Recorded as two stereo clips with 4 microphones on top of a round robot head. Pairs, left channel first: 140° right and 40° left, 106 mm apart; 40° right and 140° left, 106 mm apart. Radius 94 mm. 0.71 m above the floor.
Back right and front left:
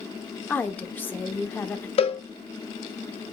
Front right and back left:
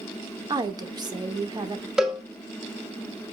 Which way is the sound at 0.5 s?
155° left.